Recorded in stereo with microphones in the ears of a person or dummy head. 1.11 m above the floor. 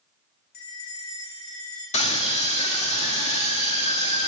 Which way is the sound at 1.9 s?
35° left (ahead or behind).